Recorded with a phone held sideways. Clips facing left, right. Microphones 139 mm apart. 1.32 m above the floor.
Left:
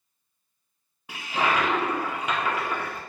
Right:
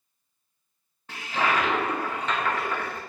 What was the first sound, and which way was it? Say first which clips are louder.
A toilet flushing: even; 10° left (ahead or behind).